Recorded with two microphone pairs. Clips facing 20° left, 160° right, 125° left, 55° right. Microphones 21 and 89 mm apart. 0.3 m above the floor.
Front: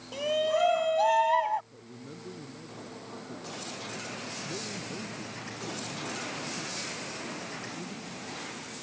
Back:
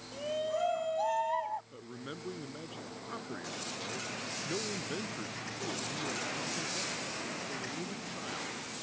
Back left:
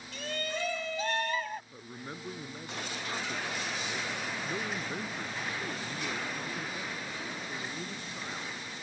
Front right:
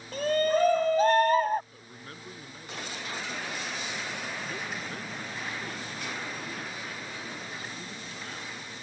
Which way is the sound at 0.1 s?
20° right.